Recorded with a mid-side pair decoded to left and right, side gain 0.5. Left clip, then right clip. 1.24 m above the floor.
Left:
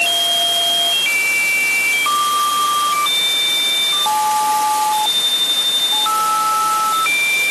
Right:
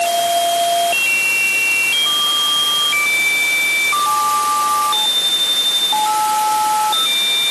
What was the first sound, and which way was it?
Only background noise.